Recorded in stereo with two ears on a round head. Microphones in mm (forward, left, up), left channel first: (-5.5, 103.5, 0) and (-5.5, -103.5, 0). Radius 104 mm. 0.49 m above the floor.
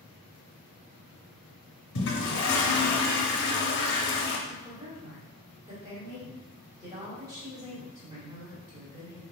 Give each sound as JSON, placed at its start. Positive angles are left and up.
{"t": 1.9, "sound": "a toilet flushing", "side_deg": 55, "distance_m": 0.5}
{"t": 4.5, "sound": "a woman speaking", "side_deg": -15, "distance_m": 1.3}